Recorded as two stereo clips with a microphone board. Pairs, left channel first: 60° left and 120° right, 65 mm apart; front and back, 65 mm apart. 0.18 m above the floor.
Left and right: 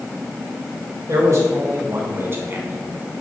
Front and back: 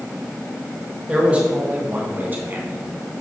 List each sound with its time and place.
1.1 s a man speaking: 115° right, 1.9 m; by 2.8 s 160° right, 1.4 m